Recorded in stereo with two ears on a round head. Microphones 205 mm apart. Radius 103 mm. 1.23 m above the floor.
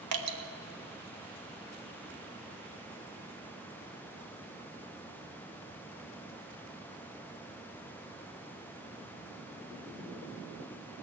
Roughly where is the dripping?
Right.